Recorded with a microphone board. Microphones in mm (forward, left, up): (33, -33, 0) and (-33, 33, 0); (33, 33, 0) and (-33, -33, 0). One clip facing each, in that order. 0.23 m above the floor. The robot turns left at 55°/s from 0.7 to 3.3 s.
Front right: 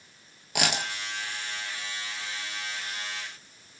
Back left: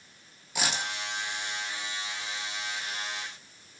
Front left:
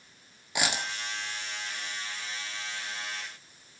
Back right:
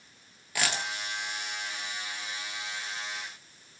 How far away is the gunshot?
I don't hear a gunshot.